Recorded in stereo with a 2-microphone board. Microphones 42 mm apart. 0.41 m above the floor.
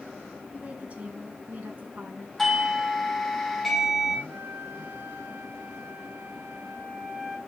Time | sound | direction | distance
0.5 | a woman speaking | 30° right (ahead or behind) | 4 m
2.4 | a doorbell | 5° left (ahead or behind) | 2 m
4.3 | a flute | 75° right (ahead or behind) | 5.5 m